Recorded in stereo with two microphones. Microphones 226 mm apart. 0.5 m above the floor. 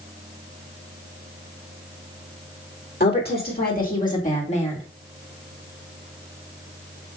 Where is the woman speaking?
45° left (ahead or behind), 2 m; by 4.8 s 25° left (ahead or behind), 1.4 m.